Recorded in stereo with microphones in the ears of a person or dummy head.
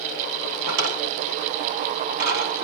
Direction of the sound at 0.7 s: 50° right (ahead or behind).